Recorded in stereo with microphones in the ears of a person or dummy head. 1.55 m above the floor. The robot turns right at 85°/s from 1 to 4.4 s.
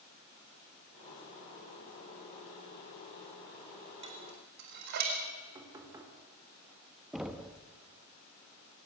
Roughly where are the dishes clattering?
Right.